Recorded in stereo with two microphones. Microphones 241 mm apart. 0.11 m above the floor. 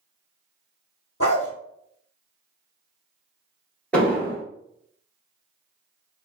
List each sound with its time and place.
1.2 s a dog barking: 60° left (ahead or behind), 1.0 m
3.9 s an explosion: 5° left (ahead or behind), 1.6 m